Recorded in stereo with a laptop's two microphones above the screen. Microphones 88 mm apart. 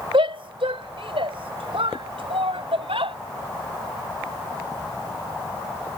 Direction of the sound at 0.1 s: 85° right.